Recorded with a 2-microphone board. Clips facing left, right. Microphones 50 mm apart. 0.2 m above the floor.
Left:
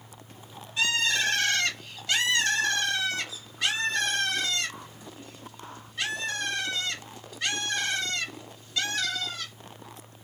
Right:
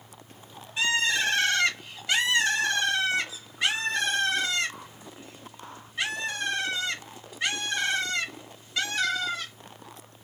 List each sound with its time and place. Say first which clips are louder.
0.8 s a bird: right 1 dB; 20° right (ahead or behind), 1.5 m